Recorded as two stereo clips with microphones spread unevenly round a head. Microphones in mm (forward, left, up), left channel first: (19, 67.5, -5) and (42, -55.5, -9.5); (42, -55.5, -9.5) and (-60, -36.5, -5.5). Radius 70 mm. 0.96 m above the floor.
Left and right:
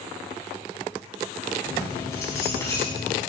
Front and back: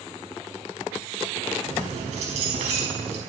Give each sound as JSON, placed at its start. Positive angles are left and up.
{"t": 1.6, "sound": "keys jangling", "azimuth_deg": 170, "distance_m": 4.5}